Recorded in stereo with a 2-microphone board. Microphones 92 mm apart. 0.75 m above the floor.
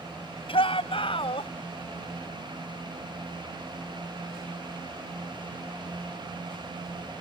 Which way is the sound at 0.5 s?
75° left (ahead or behind).